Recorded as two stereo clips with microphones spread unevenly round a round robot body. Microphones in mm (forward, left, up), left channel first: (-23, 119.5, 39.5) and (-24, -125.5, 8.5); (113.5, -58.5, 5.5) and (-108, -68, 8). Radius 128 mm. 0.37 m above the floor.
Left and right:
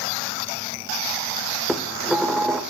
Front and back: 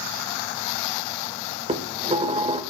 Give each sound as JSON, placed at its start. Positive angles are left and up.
{"t": 1.7, "sound": "dishes clattering", "azimuth_deg": -165, "distance_m": 0.7}